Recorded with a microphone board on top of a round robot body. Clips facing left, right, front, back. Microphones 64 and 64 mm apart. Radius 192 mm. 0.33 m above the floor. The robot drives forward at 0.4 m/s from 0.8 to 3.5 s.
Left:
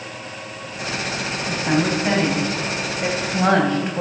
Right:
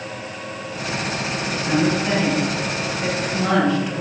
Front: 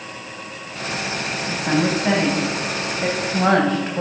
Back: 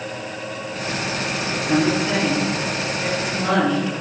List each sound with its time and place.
1.5 s a woman speaking: 30° left, 3.5 m; by 4.0 s 40° left, 3 m